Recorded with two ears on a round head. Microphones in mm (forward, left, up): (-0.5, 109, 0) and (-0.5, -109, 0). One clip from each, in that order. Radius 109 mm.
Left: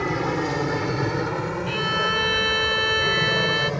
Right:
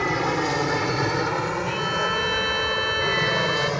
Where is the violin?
5° left (ahead or behind).